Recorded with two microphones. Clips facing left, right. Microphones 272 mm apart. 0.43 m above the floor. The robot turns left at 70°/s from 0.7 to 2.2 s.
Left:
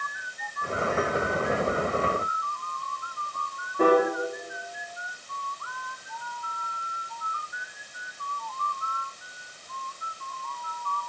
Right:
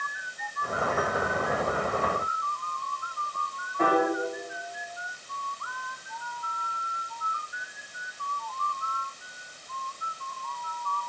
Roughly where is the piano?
Left.